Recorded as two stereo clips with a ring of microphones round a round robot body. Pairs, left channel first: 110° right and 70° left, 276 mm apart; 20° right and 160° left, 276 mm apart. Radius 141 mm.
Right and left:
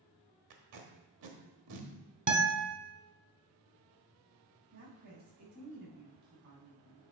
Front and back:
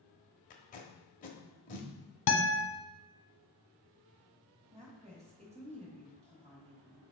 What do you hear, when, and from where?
0.5 s tape being pulled: 40° left, 1.2 m
2.3 s a guitar: 10° left, 1.1 m
4.7 s a woman speaking: 90° left, 3 m